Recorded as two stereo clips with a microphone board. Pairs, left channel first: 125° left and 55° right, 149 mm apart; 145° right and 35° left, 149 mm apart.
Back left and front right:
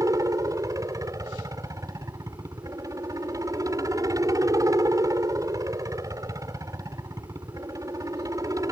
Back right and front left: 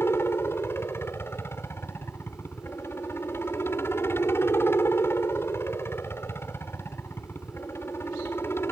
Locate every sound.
0.0 s a helicopter: 90° right